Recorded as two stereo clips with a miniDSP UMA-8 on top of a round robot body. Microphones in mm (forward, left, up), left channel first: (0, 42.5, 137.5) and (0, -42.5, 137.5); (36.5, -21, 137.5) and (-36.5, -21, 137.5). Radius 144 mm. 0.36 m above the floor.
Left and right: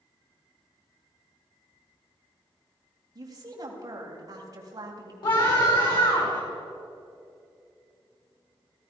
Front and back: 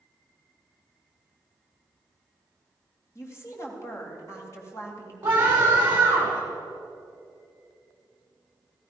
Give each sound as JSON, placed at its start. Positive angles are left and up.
{"t": 3.1, "sound": "a woman speaking", "azimuth_deg": -45, "distance_m": 3.5}
{"t": 5.2, "sound": "a scream", "azimuth_deg": 115, "distance_m": 5.5}